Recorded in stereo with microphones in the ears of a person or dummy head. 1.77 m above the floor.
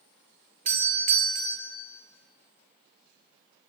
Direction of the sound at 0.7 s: 40° right (ahead or behind).